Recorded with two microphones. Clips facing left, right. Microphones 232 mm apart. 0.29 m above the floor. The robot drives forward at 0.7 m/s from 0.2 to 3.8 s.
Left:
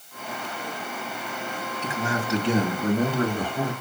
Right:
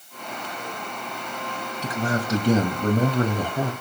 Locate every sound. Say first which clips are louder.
1.8 s a man speaking: right 3 dB; 40° right (ahead or behind), 2.5 m; by 3.7 s 45° right (ahead or behind), 2 m